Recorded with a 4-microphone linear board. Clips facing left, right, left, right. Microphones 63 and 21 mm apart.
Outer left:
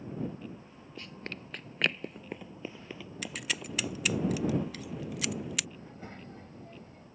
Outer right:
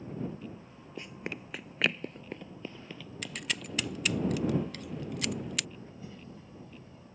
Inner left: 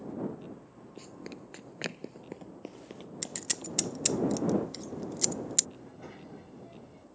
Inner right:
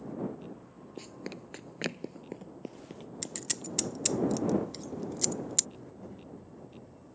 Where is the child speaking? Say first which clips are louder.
Outer left 1 dB, even; 55° left (ahead or behind).